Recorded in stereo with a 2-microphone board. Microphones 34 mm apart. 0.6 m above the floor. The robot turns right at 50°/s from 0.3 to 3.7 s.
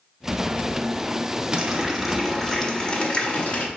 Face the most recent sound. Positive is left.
turn(degrees=80)